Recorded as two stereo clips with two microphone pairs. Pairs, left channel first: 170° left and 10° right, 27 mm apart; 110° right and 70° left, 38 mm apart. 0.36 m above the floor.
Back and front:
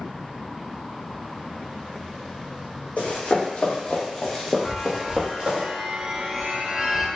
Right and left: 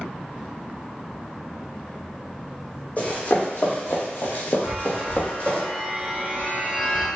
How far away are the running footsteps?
About 1.1 m.